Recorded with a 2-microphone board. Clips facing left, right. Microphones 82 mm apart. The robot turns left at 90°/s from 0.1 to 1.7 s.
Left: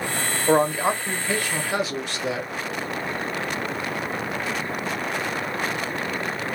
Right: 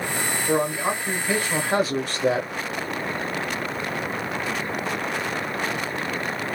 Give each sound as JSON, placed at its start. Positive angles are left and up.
{"t": 0.5, "sound": "a man speaking", "azimuth_deg": 65, "distance_m": 1.0}